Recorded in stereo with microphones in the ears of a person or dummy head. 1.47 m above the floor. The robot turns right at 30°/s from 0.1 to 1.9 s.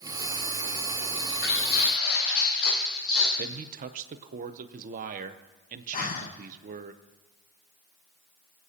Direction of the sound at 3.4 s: 45° right (ahead or behind).